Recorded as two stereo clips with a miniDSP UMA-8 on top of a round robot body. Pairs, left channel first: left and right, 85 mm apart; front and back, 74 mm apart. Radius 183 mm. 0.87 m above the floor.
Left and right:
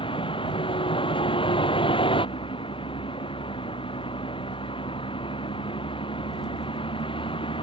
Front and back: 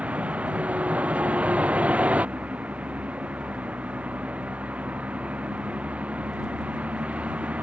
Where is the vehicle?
105° left.